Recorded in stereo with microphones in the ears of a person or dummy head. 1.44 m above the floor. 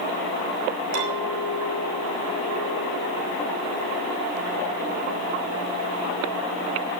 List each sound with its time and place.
0.9 s a clink: 65° right (ahead or behind), 5.5 m